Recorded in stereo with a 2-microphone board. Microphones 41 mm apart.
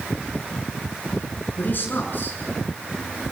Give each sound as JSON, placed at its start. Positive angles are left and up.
{"t": 1.6, "sound": "a man speaking", "side_deg": 50, "distance_m": 6.5}